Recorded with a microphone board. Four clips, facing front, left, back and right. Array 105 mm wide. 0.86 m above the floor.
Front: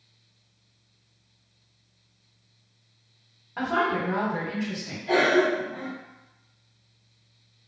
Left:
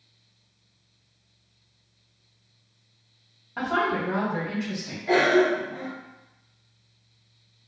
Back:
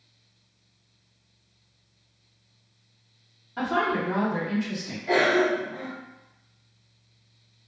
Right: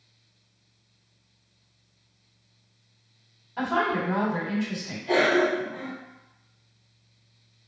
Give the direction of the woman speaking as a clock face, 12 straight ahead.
10 o'clock.